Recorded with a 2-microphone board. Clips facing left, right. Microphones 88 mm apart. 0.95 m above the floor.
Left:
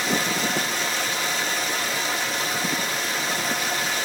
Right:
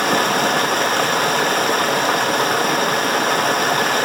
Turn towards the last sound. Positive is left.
turn(degrees=-60)  # may be behind; listen again after turning